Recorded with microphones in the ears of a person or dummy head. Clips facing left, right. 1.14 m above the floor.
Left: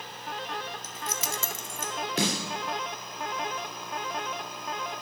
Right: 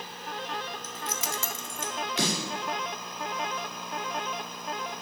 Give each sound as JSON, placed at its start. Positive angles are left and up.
{"t": 0.8, "sound": "keys jangling", "side_deg": 70, "distance_m": 0.7}
{"t": 2.2, "sound": "a snare drum", "side_deg": 40, "distance_m": 2.5}